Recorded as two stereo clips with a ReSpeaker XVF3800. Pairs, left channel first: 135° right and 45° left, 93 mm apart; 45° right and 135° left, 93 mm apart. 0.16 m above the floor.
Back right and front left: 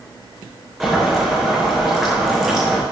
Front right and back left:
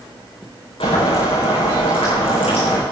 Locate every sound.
0.8 s boiling: 40° right, 8.5 m